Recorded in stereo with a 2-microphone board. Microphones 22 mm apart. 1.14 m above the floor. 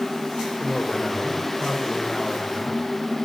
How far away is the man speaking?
About 4.5 m.